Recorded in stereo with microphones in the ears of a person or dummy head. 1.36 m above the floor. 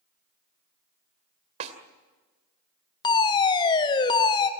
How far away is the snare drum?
About 2 m.